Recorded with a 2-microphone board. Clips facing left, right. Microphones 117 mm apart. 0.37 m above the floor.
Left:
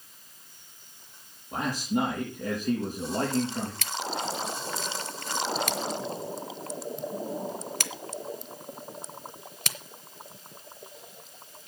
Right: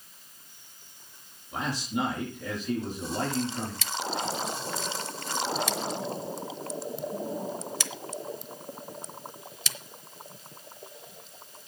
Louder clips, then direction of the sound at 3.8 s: Right 1 dB; 55° left (ahead or behind).